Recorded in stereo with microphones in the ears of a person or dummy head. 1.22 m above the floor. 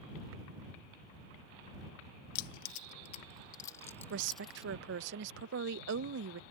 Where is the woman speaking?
65° right (ahead or behind).